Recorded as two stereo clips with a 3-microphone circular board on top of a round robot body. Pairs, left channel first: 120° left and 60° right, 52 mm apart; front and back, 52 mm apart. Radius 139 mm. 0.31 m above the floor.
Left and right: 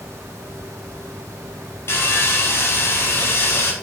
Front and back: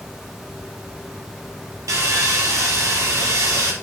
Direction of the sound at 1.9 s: 160° left.